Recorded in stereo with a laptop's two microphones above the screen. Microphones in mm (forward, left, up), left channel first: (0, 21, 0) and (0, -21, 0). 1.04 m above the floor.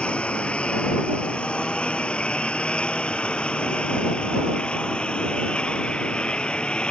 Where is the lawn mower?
25° left (ahead or behind); by 6.9 s 20° left (ahead or behind).